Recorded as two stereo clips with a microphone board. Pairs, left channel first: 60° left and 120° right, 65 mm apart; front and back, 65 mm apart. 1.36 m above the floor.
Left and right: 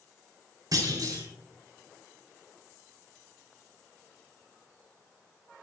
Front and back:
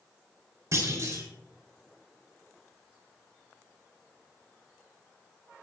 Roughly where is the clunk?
Behind right.